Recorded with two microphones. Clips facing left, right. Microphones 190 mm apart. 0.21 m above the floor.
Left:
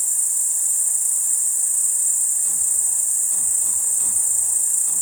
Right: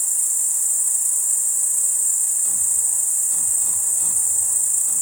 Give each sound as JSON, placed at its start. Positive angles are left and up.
{"t": 0.0, "sound": "an insect", "side_deg": 45, "distance_m": 1.7}